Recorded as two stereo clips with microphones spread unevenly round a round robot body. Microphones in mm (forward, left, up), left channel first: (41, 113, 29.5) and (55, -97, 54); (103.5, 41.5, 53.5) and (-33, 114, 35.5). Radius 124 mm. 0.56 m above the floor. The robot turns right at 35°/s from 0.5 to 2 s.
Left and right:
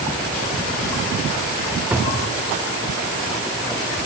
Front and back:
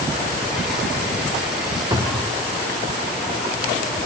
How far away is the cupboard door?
About 1.1 m.